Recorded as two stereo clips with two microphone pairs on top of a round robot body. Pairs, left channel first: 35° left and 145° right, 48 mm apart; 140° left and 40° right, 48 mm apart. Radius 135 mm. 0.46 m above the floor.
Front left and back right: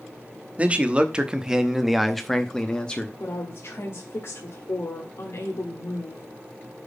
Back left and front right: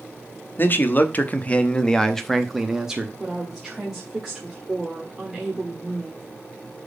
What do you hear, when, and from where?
0.6 s a man speaking: 160° left, 1.3 m; by 3.1 s straight ahead, 1.2 m
3.2 s a woman speaking: 35° left, 1.7 m